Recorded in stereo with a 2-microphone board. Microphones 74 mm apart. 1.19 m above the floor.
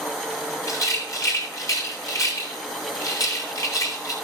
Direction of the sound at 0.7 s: 50° left (ahead or behind).